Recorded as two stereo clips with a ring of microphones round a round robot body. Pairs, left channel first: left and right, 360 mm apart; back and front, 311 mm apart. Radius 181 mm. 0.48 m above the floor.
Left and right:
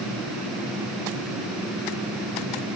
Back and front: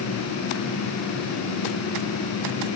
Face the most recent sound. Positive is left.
No sound to turn to.